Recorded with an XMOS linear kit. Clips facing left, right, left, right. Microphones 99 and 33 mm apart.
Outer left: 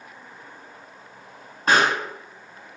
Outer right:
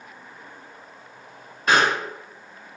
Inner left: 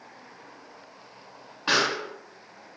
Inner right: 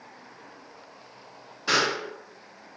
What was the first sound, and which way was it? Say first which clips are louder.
A pop: even, even; 35° left (ahead or behind).